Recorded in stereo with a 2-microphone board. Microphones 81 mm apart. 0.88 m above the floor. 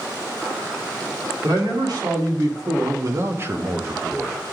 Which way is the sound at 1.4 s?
65° right (ahead or behind).